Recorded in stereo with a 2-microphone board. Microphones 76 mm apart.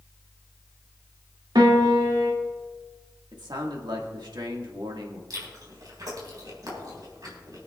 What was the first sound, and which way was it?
A piano, 75° right (ahead or behind).